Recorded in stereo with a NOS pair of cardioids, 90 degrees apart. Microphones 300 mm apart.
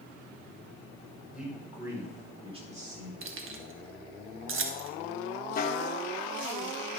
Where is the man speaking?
Straight ahead, 5 m; by 3.1 s 30° right, 4 m.